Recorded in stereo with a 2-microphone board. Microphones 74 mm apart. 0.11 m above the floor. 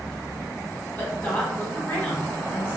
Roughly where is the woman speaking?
Left.